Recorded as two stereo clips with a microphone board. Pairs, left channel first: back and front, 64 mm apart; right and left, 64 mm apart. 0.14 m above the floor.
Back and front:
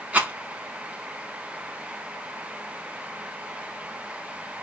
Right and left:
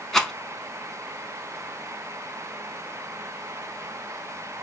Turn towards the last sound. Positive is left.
turn(degrees=-15)